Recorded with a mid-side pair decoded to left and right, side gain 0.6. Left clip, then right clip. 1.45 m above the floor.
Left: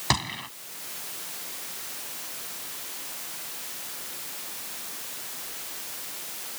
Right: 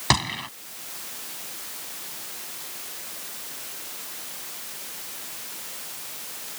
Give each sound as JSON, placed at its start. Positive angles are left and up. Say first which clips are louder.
{"t": 0.1, "sound": "a gunshot", "louder": "right 4 dB", "azimuth_deg": -20}